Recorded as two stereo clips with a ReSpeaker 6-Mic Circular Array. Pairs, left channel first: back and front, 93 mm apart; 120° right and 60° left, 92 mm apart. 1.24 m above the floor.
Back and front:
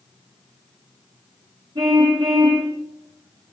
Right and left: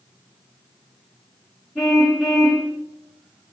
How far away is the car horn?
About 9.5 m.